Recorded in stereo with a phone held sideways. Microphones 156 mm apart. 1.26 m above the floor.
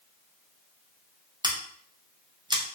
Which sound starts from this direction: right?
Scissors, at 1.4 s.